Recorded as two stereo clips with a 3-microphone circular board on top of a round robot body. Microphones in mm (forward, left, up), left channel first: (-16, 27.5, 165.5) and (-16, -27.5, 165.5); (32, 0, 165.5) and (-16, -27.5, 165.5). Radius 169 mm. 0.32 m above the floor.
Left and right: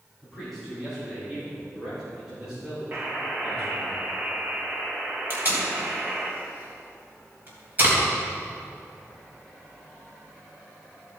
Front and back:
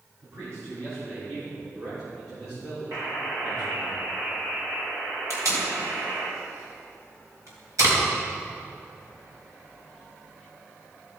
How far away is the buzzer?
About 2 m.